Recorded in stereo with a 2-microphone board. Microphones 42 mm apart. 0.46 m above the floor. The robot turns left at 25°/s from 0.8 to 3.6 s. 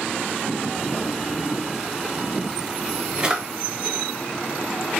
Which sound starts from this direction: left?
A drawer, at 0.9 s.